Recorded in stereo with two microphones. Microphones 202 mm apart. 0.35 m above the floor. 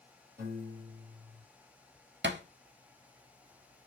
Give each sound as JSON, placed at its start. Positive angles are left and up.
{"t": 0.4, "sound": "a piano", "side_deg": -50, "distance_m": 2.5}
{"t": 2.2, "sound": "a thud", "side_deg": -60, "distance_m": 0.6}